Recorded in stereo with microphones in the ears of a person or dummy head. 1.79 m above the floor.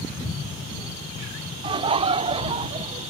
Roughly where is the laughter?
Right.